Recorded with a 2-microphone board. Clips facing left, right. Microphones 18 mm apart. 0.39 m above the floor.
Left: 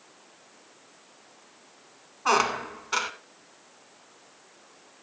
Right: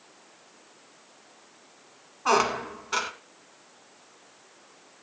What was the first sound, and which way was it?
A squeak, 5° left (ahead or behind).